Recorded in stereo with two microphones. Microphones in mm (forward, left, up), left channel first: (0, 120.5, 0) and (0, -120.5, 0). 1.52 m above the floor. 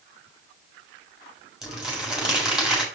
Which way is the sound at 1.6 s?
Centre (ahead or behind).